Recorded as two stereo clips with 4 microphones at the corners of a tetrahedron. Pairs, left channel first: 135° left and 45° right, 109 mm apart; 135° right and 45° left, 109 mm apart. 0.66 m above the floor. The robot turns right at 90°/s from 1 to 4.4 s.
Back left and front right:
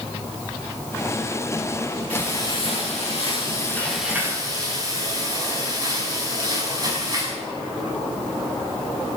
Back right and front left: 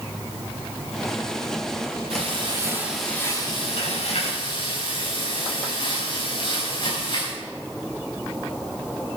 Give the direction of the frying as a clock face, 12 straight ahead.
10 o'clock.